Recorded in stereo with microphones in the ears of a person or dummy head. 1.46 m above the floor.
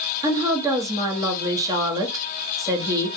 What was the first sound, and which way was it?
A woman speaking, 20° right (ahead or behind).